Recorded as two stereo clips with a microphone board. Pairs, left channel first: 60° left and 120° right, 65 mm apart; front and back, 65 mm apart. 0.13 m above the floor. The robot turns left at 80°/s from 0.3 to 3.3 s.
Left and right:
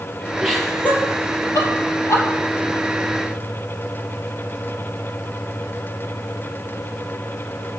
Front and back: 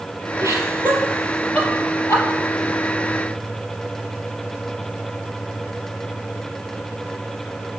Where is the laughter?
160° left, 4 m; by 2.2 s 15° left, 4 m.